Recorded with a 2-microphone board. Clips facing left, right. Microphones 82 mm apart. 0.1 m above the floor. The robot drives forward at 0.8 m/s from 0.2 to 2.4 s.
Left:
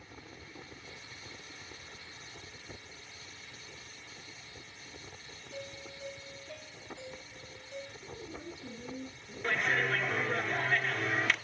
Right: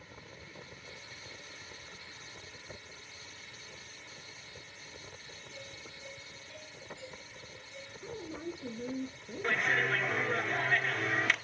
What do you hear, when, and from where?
5.5 s a doorbell: 70° left (ahead or behind), 8.5 m
8.0 s a woman speaking: 70° right (ahead or behind), 4 m
9.4 s a clap: 10° right (ahead or behind), 1.0 m